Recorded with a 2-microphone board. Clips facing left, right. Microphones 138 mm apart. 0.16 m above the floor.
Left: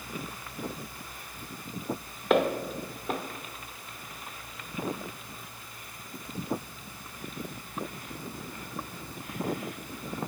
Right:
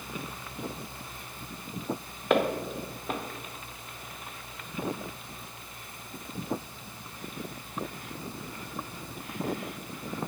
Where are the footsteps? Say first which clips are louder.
Left 1 dB; centre (ahead or behind), 1.1 m.